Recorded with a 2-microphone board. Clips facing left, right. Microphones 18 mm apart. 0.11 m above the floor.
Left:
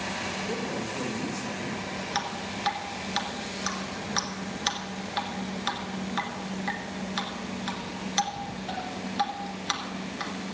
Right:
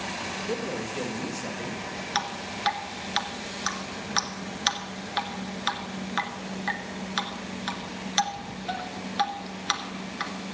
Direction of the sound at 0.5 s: 45° right (ahead or behind).